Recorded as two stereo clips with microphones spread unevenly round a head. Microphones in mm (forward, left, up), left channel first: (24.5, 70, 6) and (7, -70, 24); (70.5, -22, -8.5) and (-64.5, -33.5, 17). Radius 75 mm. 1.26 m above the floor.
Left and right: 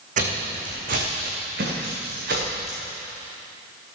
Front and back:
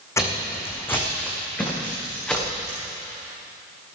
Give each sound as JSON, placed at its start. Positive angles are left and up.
{"t": 0.2, "sound": "footsteps", "azimuth_deg": -70, "distance_m": 4.0}